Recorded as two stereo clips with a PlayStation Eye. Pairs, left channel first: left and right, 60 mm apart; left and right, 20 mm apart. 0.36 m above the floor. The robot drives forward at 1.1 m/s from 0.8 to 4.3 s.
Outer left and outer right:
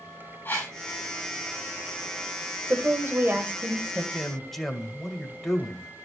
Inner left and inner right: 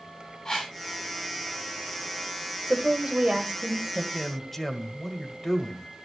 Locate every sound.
0.5 s a whoosh: 35° left (ahead or behind), 7.5 m
2.7 s a woman speaking: 45° right (ahead or behind), 1.4 m; by 4.0 s 30° right (ahead or behind), 1.9 m
4.1 s a man speaking: 5° left (ahead or behind), 1.6 m